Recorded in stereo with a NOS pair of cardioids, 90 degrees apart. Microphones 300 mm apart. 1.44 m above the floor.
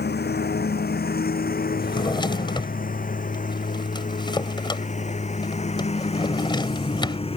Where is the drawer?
15° left.